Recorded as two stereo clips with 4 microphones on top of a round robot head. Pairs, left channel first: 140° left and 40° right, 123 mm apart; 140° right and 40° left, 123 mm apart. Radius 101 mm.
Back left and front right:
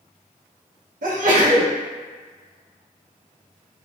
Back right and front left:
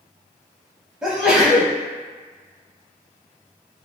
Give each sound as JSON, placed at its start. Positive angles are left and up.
{"t": 1.0, "sound": "a sneeze", "azimuth_deg": -50, "distance_m": 0.7}